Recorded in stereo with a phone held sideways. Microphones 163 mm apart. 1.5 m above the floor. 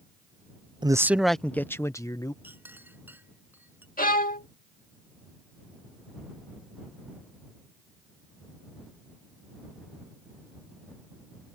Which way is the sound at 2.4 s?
10° right (ahead or behind).